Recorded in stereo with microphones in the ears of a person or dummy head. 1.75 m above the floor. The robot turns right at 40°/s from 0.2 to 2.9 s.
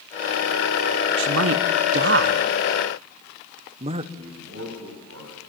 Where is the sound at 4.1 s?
70° right (ahead or behind), 8.5 m.